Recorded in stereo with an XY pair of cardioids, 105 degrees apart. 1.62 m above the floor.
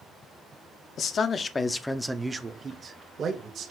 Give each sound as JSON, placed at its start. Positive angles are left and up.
{"t": 1.0, "sound": "a man speaking", "azimuth_deg": 55, "distance_m": 0.7}